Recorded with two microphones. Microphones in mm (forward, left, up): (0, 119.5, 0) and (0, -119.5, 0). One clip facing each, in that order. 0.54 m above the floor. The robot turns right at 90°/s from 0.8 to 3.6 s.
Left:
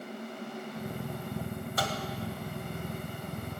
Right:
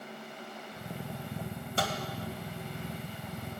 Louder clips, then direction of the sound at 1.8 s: Right 2 dB; 30° right (ahead or behind).